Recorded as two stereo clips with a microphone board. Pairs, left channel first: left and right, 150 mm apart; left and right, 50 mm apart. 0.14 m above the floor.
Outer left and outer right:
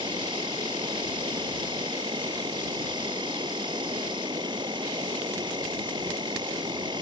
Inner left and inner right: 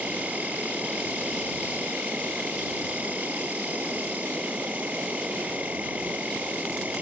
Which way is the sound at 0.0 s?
30° right (ahead or behind).